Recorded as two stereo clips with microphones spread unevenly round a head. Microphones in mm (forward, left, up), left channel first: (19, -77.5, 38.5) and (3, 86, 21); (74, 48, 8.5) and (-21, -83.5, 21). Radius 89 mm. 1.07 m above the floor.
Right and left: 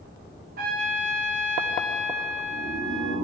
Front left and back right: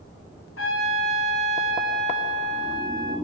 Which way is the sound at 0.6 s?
55° left.